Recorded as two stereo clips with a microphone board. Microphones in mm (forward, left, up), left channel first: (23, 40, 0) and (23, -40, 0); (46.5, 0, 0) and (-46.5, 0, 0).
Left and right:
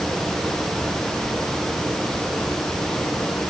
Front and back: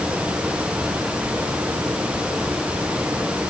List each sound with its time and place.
Only background noise.